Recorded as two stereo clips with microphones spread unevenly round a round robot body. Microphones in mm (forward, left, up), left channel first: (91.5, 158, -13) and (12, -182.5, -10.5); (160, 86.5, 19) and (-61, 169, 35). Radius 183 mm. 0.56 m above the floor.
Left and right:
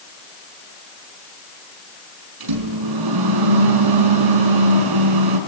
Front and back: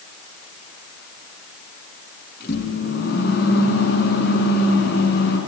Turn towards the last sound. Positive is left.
turn(degrees=-85)